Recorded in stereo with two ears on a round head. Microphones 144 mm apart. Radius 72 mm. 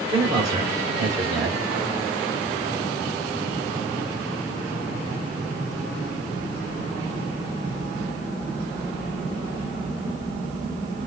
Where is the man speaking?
25° right (ahead or behind), 1.7 m.